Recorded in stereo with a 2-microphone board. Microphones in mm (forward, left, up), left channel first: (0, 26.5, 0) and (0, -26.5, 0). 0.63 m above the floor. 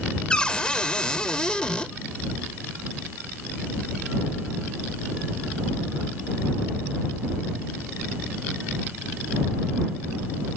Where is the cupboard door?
15° left (ahead or behind).